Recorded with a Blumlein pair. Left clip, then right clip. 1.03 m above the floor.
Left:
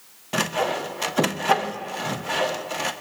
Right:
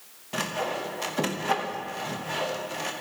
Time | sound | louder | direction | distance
0.3 | sawing | left 5 dB | 20° left | 0.8 m